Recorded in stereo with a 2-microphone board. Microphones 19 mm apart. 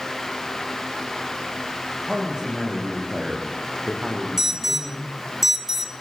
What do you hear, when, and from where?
2.1 s a man speaking: 35° right (ahead or behind), 9 m
4.4 s an alarm: 20° right (ahead or behind), 1.8 m